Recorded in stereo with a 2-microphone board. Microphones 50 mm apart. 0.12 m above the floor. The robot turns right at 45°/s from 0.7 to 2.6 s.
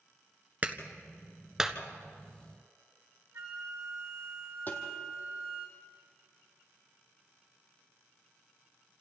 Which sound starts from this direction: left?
Tapping, at 4.7 s.